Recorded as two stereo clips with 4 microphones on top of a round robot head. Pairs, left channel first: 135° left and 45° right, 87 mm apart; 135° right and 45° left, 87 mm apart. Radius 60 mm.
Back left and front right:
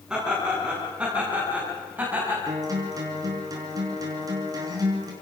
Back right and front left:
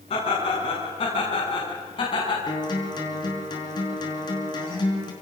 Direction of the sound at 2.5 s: 95° right.